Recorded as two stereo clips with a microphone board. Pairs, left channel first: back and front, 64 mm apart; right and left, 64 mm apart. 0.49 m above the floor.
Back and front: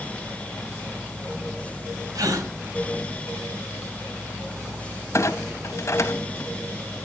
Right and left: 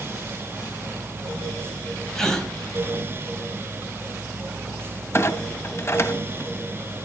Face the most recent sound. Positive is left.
turn(degrees=-135)